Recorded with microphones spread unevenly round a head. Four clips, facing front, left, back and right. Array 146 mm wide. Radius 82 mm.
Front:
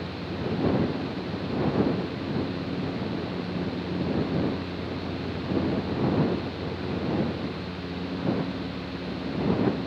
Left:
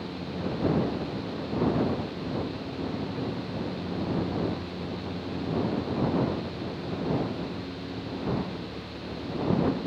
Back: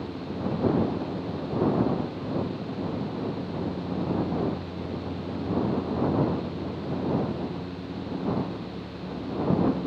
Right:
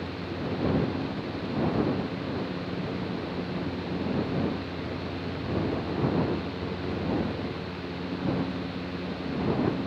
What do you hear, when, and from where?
Only background noise.